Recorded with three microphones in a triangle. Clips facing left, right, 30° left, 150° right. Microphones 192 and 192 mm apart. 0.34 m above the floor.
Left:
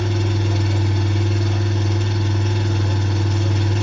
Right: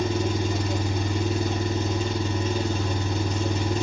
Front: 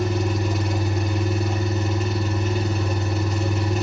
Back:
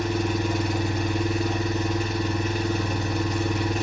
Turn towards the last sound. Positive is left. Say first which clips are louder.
# left 1 dB, front 1 dB
turn(degrees=120)